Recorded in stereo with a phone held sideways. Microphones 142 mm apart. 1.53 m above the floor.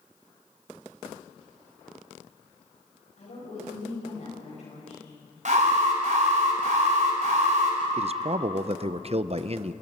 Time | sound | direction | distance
3.2 | a woman speaking | 60° left (ahead or behind) | 9.5 m
5.5 | an alarm | 60° right (ahead or behind) | 4.5 m
8.0 | a man speaking | 45° right (ahead or behind) | 0.6 m